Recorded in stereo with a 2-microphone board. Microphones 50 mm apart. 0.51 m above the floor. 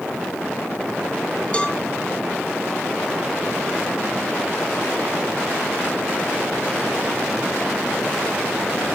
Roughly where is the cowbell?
Left.